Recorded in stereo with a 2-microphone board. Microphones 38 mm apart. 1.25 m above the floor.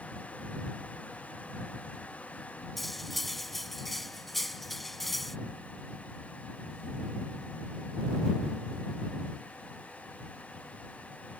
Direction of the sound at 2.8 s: Centre (ahead or behind).